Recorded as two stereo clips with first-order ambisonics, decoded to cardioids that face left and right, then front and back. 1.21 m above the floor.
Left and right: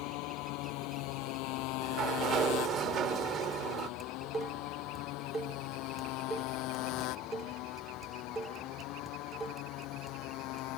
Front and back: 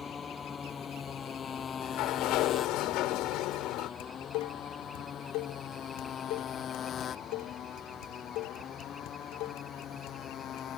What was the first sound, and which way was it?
A motorcycle, 70° left.